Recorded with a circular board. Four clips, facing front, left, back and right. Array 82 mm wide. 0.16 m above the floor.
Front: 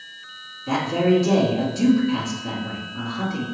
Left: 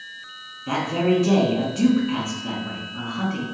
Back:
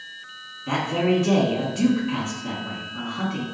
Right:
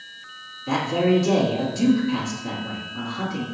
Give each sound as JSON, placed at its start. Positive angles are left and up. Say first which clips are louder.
{"t": 0.7, "sound": "a man speaking", "louder": "right 1 dB, front 3 dB", "azimuth_deg": 135, "distance_m": 1.5}